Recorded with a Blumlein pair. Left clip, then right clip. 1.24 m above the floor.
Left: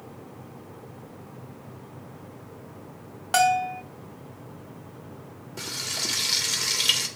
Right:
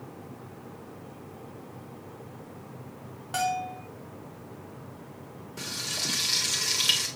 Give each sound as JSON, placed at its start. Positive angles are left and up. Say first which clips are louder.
{"t": 3.3, "sound": "a bell", "louder": "left 8 dB", "azimuth_deg": 30, "distance_m": 0.6}
{"t": 5.6, "sound": "frying", "louder": "left 2 dB", "azimuth_deg": 5, "distance_m": 1.5}